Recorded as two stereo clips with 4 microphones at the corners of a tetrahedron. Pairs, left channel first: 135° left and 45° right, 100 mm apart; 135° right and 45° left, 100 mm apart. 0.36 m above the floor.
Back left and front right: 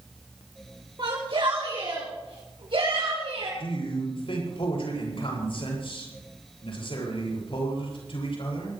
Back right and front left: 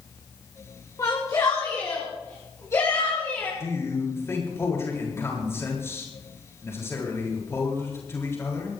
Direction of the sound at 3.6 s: 160° left.